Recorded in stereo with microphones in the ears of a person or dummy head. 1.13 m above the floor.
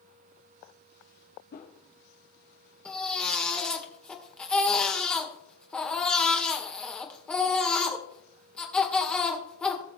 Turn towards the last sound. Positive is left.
turn(degrees=10)  # may be behind; listen again after turning